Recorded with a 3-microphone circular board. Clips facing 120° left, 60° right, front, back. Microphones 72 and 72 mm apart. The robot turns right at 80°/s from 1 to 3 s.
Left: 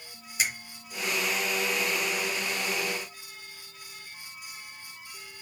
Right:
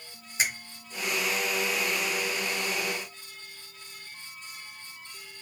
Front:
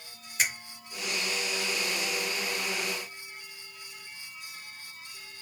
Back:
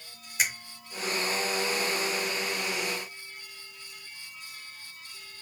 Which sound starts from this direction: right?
A finger snap, at 0.4 s.